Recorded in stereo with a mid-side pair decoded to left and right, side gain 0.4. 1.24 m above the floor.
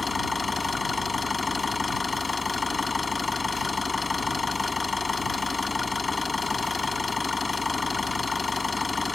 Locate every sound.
0.0 s an engine running: 25° left